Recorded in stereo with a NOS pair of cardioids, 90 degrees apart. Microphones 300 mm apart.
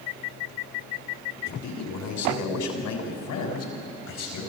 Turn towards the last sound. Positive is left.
turn(degrees=75)